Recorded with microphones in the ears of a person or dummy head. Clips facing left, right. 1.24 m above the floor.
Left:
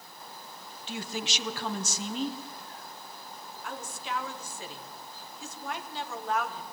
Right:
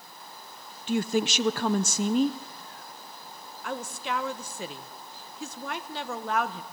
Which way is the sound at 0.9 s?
40° right (ahead or behind).